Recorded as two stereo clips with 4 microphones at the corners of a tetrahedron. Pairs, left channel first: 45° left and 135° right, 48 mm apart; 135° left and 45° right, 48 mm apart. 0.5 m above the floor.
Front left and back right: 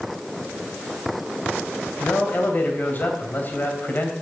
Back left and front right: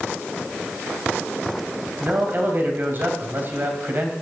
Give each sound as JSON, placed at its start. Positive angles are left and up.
{"t": 2.0, "sound": "a man speaking", "azimuth_deg": 0, "distance_m": 2.5}